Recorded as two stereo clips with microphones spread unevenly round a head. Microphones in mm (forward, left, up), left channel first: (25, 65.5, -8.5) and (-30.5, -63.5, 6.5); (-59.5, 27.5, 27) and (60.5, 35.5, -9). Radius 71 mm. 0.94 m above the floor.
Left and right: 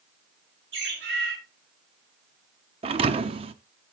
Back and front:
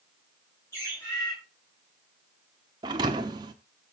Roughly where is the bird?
Right.